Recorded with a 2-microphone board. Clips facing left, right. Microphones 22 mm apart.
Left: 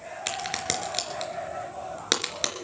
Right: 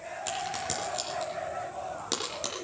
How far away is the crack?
About 3.5 m.